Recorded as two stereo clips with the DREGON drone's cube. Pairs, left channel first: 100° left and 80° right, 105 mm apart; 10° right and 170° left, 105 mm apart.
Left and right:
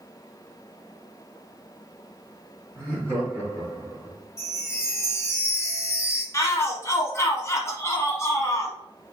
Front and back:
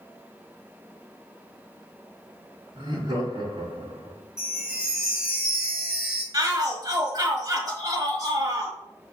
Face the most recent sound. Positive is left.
turn(degrees=145)